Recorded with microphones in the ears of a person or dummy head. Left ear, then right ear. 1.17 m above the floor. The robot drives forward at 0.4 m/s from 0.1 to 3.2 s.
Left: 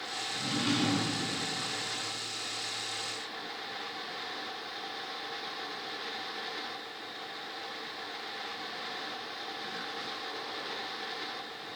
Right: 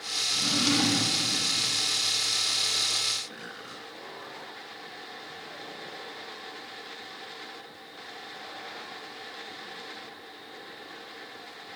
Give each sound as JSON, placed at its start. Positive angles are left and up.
{"t": 0.3, "sound": "a drawer", "side_deg": -30, "distance_m": 1.3}